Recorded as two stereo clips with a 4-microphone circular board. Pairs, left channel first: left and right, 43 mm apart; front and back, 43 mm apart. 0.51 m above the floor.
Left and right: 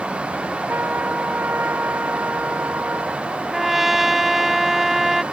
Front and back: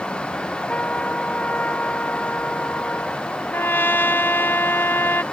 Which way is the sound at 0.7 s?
50° right.